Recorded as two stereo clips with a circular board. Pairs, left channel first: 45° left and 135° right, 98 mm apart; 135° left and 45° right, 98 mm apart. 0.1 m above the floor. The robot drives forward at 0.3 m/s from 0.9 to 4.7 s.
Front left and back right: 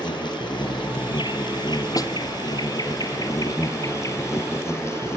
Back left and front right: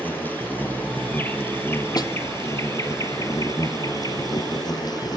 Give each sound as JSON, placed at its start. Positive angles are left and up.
{"t": 0.0, "sound": "an insect", "azimuth_deg": 65, "distance_m": 2.5}
{"t": 2.0, "sound": "a snare drum", "azimuth_deg": 90, "distance_m": 1.2}